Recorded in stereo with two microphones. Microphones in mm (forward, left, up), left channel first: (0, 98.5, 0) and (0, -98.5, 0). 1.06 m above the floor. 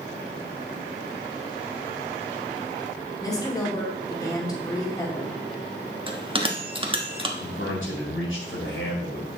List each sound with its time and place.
3.2 s a woman speaking: 20° left (ahead or behind), 2.5 m
6.1 s a bell: 25° right (ahead or behind), 1.2 m
7.4 s a man speaking: 85° left, 4 m